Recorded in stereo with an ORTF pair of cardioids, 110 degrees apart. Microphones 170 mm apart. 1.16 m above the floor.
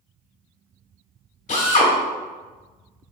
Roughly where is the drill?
Ahead left.